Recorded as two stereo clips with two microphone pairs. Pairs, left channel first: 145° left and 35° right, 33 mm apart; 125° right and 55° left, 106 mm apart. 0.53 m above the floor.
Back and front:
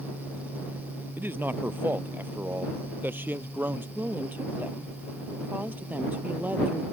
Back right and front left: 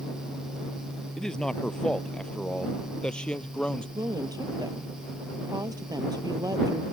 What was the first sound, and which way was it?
A man speaking, 40° right.